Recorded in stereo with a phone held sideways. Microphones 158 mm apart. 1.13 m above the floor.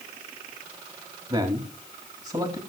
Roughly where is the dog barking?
I don't hear a dog barking.